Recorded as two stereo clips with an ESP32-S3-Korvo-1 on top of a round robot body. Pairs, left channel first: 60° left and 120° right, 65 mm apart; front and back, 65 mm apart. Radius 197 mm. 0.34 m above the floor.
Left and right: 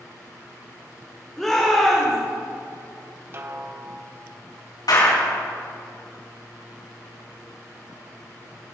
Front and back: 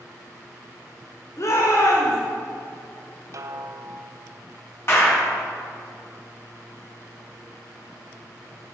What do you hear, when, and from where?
1.4 s a shout: 25° right, 2.5 m
3.3 s a snare drum: 160° right, 1.2 m
4.9 s a clap: 50° left, 4 m